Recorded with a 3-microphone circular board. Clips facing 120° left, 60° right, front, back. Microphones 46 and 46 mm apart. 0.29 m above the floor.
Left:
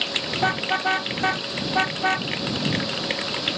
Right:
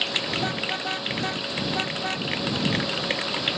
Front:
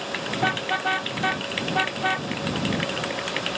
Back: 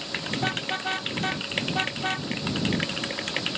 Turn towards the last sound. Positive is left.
turn(degrees=70)